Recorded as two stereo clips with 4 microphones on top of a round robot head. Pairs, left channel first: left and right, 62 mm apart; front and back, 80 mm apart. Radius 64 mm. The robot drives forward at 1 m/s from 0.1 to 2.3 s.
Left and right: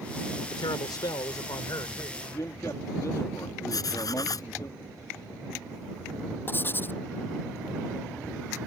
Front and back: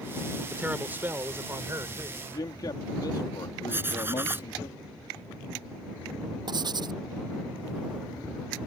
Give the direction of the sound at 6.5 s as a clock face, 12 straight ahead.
7 o'clock.